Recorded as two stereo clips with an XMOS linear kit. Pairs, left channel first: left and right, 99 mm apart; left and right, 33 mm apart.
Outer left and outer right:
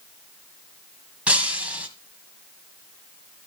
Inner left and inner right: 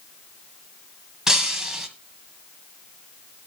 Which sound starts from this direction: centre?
Breaking glass, at 1.3 s.